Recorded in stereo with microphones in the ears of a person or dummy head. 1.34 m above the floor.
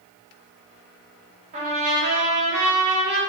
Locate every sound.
1.5 s a trumpet: 30° right (ahead or behind), 0.6 m